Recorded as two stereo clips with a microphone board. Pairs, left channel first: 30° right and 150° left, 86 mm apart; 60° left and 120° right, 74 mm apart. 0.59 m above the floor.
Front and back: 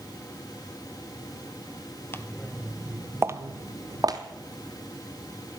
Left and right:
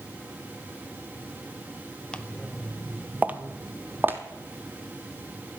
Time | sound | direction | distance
2.1 | footsteps | 5° right | 0.6 m